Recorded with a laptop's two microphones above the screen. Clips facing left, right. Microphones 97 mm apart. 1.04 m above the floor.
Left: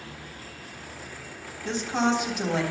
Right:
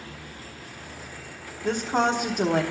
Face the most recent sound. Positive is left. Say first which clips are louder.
# right 2 dB
turn(degrees=-50)  # may be behind; listen again after turning